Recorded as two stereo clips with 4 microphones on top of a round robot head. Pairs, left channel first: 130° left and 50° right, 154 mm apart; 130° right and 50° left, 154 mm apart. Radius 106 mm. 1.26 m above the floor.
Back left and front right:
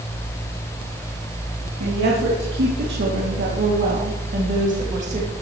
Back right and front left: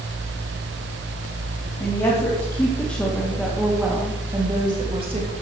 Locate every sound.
1.8 s a woman speaking: 65° right, 3.5 m; by 5.3 s straight ahead, 3 m